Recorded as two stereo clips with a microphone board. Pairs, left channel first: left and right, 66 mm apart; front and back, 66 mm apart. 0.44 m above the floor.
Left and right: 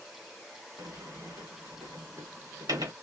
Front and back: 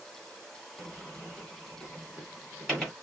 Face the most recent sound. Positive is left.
turn(degrees=-90)